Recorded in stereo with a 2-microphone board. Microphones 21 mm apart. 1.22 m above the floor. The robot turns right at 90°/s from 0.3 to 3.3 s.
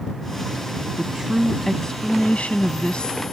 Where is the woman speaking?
50° right; by 3.2 s 150° left.